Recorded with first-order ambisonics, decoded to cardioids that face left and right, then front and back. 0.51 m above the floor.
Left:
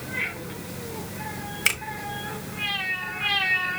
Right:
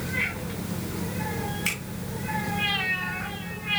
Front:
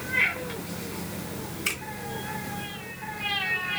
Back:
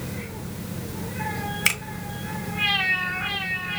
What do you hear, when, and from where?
1.6 s a finger snap: 145° left, 1.4 m